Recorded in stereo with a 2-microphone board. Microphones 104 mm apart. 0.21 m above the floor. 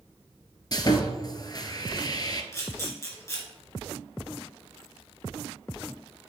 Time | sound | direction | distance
0.7 | sawing | 40° left (ahead or behind) | 0.7 m
2.5 | a camera shutter | 25° left (ahead or behind) | 2.5 m